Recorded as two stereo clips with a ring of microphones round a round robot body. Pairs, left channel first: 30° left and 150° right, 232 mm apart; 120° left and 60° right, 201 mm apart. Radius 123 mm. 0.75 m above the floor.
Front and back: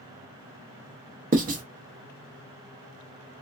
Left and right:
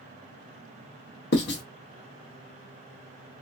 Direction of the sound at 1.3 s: 155° left.